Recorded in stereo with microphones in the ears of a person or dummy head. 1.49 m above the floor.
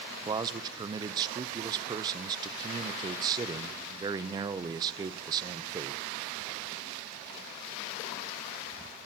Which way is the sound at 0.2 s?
25° right (ahead or behind).